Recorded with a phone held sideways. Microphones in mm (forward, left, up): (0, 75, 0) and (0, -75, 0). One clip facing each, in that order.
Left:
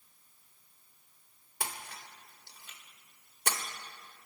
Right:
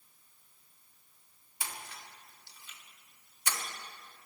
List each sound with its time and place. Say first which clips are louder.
1.6 s a splash: left 3 dB; 65° left (ahead or behind), 1.9 m